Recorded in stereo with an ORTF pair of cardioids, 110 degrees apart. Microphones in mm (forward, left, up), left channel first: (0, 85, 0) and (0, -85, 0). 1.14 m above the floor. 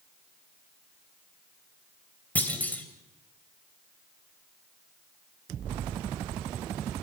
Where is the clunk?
10° left, 3 m.